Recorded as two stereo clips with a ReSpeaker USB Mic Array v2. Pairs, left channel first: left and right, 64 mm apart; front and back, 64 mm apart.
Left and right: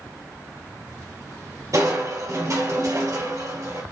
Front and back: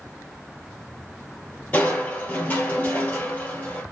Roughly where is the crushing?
Ahead right.